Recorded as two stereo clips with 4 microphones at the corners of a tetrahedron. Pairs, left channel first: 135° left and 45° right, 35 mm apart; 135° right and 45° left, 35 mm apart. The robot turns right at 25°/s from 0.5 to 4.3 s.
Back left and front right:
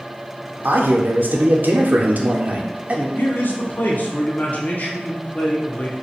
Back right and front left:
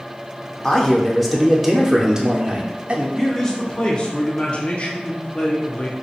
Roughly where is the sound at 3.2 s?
Behind left.